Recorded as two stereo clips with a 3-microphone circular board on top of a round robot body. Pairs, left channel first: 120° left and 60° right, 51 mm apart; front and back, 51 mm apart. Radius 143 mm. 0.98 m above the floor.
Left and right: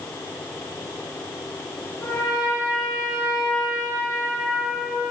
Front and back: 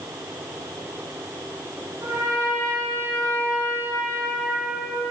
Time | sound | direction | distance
2.0 | a trumpet | 150° left | 1.5 m